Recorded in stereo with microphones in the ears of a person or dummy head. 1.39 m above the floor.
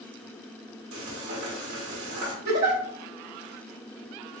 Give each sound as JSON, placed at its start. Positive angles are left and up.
{"t": 0.9, "sound": "frying", "side_deg": -55, "distance_m": 1.5}
{"t": 2.5, "sound": "a giggle", "side_deg": -65, "distance_m": 1.7}